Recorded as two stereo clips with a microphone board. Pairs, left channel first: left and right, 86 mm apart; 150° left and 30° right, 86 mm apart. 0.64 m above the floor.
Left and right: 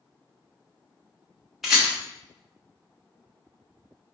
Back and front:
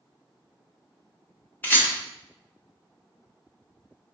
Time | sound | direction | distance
1.6 | a rattle | 175° right | 1.0 m